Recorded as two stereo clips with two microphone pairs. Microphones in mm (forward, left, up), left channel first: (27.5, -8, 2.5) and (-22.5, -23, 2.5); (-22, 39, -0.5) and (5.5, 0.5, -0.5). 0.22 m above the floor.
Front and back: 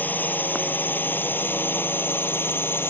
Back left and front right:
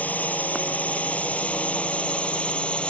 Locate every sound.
0.0 s a drone: 70° left; by 2.9 s 60° left